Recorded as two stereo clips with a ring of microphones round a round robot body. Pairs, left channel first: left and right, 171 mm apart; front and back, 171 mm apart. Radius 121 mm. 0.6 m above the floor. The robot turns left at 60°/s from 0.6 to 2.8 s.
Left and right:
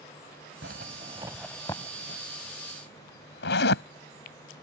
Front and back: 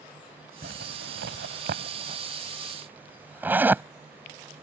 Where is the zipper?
125° right; by 3.8 s 100° left.